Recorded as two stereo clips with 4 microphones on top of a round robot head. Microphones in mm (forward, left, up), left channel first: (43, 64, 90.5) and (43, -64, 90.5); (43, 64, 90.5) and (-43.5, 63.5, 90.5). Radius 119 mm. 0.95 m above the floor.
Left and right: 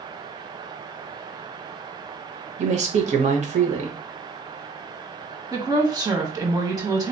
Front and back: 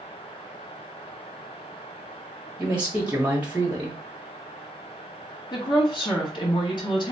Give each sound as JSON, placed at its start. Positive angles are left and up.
{"t": 2.6, "sound": "a man speaking", "azimuth_deg": -105, "distance_m": 1.1}
{"t": 5.5, "sound": "a woman speaking", "azimuth_deg": -30, "distance_m": 1.3}